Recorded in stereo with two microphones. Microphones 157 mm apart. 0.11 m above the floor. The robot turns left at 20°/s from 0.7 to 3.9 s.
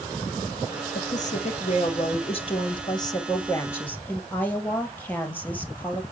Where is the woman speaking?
70° left, 2.5 m; by 6.0 s 15° left, 2.5 m.